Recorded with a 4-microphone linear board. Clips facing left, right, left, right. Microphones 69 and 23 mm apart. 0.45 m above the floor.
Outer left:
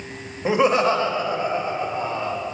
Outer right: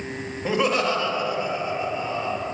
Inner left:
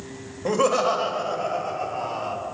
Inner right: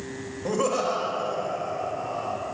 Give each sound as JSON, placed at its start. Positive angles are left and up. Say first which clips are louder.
{"t": 0.5, "sound": "laughter", "louder": "outer left 4 dB, inner left 4 dB", "side_deg": 20, "distance_m": 2.0}